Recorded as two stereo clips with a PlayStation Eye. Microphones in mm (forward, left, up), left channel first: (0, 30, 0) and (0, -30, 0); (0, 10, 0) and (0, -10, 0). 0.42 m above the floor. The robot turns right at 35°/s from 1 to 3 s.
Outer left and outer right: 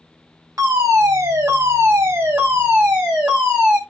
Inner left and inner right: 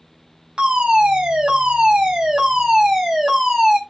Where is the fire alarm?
90° right, 3.5 m; by 3.8 s 20° right, 3.5 m.